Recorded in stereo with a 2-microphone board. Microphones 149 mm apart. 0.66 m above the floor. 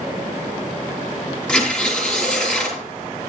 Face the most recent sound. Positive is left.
turn(degrees=5)  # may be behind; listen again after turning